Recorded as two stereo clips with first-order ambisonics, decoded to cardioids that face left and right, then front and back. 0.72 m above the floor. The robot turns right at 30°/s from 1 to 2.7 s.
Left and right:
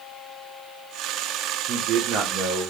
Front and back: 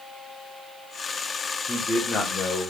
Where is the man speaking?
80° right, 0.9 m; by 2.7 s 45° right, 0.9 m.